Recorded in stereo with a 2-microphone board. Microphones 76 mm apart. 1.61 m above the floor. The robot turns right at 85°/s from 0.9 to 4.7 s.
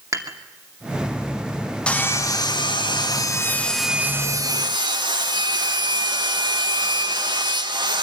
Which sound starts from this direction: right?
Dishes clattering, at 0.1 s.